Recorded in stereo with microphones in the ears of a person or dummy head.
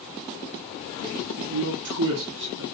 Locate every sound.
1.4 s a man speaking: 65° right (ahead or behind), 0.6 m